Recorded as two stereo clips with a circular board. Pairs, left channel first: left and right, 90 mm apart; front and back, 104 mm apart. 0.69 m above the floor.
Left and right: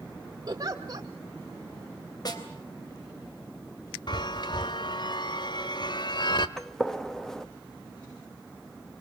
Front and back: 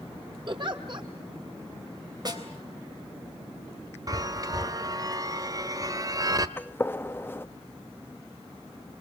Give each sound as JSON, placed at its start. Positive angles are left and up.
{"t": 0.5, "sound": "a giggle", "azimuth_deg": -140, "distance_m": 2.5}
{"t": 2.2, "sound": "a snare drum", "azimuth_deg": 130, "distance_m": 3.5}
{"t": 4.1, "sound": "a chime", "azimuth_deg": 125, "distance_m": 1.2}
{"t": 6.6, "sound": "a gunshot", "azimuth_deg": 15, "distance_m": 1.1}